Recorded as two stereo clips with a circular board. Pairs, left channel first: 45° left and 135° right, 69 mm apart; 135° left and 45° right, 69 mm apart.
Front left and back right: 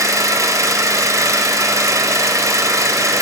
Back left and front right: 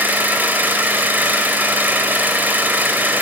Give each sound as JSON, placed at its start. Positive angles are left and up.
{"t": 0.0, "sound": "an engine running", "azimuth_deg": -105, "distance_m": 2.0}